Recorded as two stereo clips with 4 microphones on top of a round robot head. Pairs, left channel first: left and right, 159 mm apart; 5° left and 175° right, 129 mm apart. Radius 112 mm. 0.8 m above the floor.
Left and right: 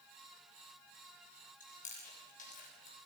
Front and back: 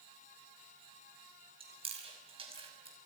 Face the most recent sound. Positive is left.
turn(degrees=140)